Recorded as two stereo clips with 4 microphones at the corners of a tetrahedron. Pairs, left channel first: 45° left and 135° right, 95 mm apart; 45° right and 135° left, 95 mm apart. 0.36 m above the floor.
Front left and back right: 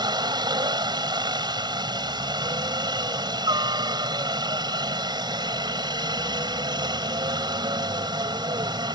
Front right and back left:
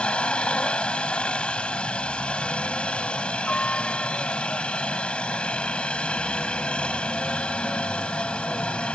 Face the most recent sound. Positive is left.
turn(degrees=-120)